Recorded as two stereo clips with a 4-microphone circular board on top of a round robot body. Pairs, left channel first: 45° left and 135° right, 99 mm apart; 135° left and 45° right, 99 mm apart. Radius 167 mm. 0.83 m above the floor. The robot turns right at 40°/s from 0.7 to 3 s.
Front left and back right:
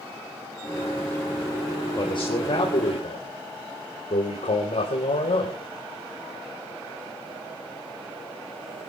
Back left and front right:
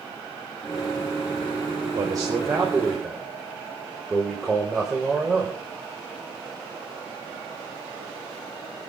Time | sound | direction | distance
1.9 | a man speaking | straight ahead | 4.5 m